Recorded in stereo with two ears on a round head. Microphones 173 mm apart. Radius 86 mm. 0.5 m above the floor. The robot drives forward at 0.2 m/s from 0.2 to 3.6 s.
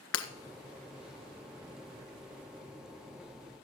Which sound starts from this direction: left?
Breaking glass, at 0.1 s.